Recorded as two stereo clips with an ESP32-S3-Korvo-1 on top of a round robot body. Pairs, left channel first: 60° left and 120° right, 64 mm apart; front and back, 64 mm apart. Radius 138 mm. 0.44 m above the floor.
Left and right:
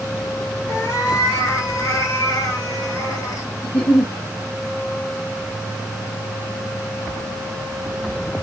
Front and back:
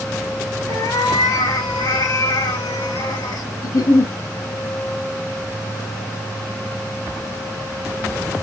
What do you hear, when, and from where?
0.7 s a cat meowing: 20° left, 2.5 m
3.6 s a giggle: 10° right, 2.0 m